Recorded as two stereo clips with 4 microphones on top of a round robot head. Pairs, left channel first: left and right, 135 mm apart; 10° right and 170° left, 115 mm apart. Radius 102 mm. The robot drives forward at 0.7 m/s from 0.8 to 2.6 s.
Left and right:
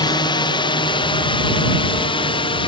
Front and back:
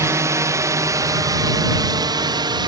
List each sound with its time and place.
0.0 s a drone: 125° left; by 2.7 s 130° left